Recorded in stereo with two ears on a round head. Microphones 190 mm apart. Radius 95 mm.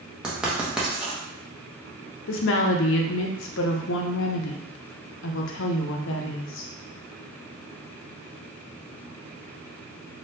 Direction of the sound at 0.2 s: 5° right (ahead or behind).